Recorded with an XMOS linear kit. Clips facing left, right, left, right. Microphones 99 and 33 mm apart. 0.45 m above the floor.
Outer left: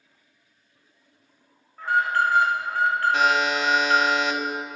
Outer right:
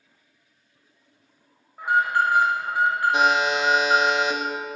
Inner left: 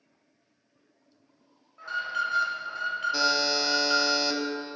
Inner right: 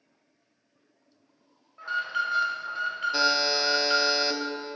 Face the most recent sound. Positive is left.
turn(degrees=-20)  # may be behind; listen again after turning